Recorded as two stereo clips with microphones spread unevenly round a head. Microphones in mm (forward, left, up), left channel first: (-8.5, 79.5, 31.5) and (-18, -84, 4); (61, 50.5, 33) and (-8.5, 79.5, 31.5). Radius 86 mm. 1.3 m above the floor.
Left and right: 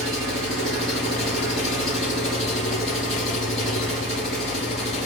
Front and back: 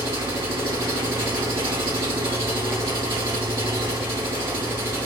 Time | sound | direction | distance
0.0 | an engine running | 175° left | 6.5 m